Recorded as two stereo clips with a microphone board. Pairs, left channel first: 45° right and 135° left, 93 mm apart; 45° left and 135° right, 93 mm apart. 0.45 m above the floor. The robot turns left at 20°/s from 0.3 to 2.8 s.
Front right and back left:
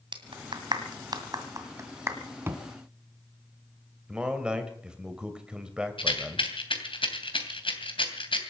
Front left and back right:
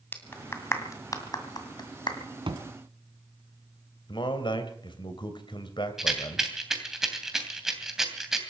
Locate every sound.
0.1 s a clap: 110° left, 2 m; by 2.2 s 75° left, 2 m
2.5 s a thud: 160° right, 2 m; by 2.6 s 165° right, 2 m
4.1 s a man speaking: 55° left, 2.5 m
6.0 s a rattle: 50° right, 2.5 m